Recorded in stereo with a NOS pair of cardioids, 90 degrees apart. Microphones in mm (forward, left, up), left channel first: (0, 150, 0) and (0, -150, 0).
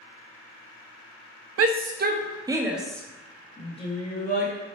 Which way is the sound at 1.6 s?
55° right.